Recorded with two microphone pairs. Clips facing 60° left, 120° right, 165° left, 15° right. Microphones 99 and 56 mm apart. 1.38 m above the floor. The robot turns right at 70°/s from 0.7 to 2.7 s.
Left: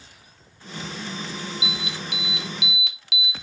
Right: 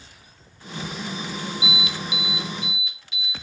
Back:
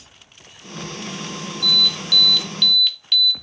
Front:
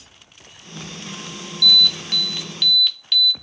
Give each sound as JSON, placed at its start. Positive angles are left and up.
{"t": 1.6, "sound": "an alarm", "azimuth_deg": -5, "distance_m": 0.7}